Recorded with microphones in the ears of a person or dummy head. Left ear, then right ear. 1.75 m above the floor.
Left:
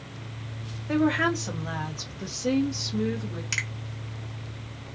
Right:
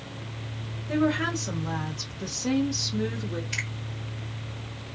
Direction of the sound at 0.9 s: 25° left (ahead or behind).